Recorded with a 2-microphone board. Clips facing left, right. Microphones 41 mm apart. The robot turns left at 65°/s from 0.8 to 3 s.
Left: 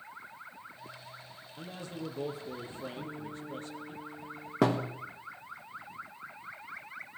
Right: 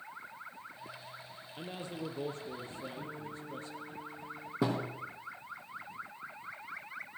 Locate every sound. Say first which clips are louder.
1.6 s a man speaking: even; 135° right, 4.5 m; by 4.0 s 130° left, 4.5 m
3.0 s a guitar: left 2 dB; 20° left (ahead or behind), 9 m
4.6 s a thud: left 5 dB; 65° left (ahead or behind), 4 m